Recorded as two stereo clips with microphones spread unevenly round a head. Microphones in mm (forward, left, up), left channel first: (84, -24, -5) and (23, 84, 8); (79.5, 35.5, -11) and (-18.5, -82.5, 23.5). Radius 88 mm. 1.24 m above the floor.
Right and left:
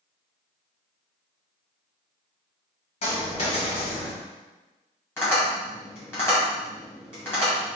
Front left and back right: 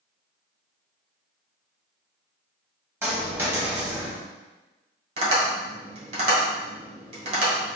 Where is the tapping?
135° right, 1.6 m.